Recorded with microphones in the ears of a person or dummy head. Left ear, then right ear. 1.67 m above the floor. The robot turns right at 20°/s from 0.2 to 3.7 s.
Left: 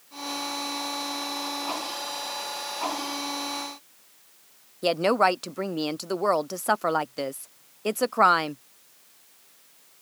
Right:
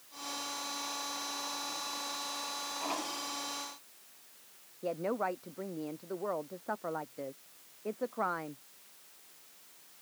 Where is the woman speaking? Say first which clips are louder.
Left 13 dB; 65° left (ahead or behind).